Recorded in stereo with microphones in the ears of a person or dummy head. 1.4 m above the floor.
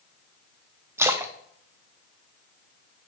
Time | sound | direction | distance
1.0 | a splash | 10° right (ahead or behind) | 0.6 m